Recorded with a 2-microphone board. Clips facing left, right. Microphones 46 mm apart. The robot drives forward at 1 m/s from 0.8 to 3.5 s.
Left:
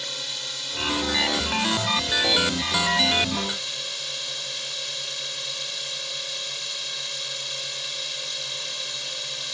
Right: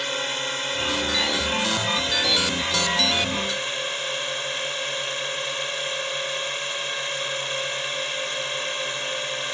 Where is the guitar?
No guitar in this recording.